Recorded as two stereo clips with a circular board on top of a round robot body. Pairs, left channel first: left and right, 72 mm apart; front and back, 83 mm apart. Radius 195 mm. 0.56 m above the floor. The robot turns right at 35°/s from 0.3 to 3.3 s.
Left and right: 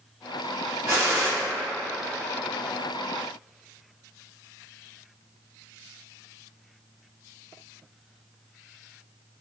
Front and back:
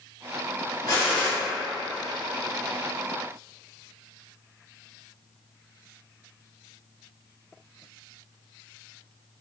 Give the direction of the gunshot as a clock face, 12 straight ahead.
2 o'clock.